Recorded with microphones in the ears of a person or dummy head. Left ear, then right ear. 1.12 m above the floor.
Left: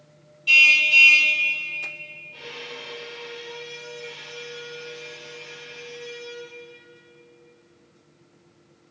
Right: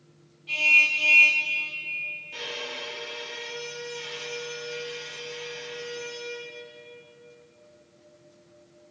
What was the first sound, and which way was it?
A car horn, 70° left (ahead or behind).